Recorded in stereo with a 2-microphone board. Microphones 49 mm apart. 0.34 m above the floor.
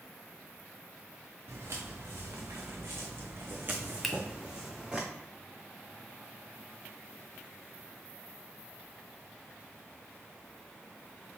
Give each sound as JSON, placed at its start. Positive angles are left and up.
{"t": 1.5, "sound": "footsteps", "side_deg": -80, "distance_m": 1.4}
{"t": 4.0, "sound": "a finger snap", "side_deg": 0, "distance_m": 0.6}